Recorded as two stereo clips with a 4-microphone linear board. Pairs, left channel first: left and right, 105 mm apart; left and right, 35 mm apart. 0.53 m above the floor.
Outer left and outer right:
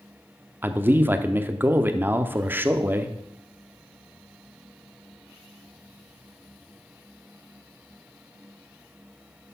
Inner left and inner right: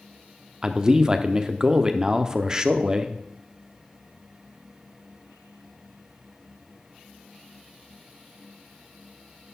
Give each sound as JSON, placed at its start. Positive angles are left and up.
{"t": 0.6, "sound": "a man speaking", "side_deg": -20, "distance_m": 0.6}